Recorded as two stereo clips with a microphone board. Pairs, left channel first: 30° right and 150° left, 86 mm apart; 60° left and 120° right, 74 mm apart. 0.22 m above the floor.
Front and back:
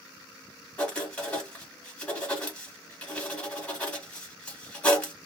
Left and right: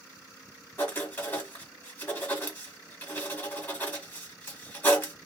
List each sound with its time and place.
0.8 s writing: 30° left, 1.5 m